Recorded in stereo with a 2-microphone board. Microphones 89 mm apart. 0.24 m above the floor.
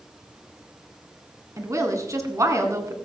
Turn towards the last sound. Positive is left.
turn(degrees=-35)  # may be behind; listen again after turning